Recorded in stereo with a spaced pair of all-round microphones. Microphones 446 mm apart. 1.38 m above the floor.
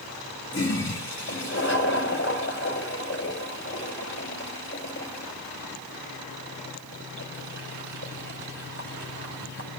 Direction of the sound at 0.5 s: 30° left (ahead or behind).